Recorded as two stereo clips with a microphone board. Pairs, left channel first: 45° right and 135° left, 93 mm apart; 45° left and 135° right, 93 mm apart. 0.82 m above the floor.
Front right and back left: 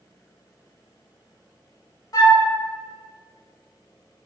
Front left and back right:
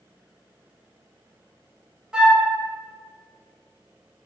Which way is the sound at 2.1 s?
60° right.